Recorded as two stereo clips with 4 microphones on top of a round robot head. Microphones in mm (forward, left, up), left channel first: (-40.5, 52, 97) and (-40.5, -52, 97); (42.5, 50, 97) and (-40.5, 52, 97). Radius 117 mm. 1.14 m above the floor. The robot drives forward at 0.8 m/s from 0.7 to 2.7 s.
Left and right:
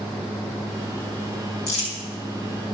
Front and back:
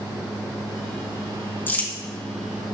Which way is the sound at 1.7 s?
65° left.